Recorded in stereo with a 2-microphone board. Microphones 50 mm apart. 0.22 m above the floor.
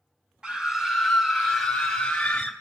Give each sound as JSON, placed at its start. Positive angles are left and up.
{"t": 0.4, "sound": "a scream", "side_deg": -15, "distance_m": 1.1}